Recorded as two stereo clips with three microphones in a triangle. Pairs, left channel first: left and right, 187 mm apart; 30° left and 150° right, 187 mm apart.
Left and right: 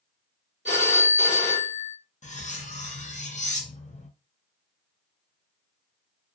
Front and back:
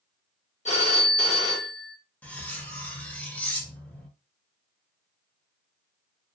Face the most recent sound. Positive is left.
turn(degrees=110)